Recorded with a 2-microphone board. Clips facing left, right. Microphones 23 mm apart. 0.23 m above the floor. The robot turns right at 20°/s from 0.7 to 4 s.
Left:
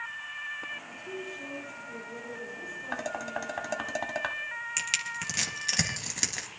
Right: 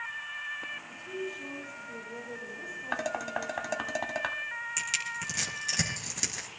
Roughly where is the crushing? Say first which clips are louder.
Left 2 dB; left.